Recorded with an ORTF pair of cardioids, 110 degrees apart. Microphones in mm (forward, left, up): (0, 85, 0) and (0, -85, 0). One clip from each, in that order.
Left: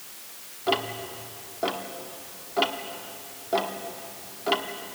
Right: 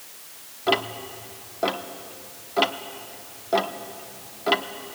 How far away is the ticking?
About 1.0 m.